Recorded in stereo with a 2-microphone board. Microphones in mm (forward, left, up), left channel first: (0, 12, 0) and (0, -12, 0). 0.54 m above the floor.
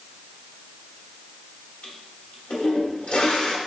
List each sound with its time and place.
1.8 s a toilet flushing: 65° left (ahead or behind), 1.0 m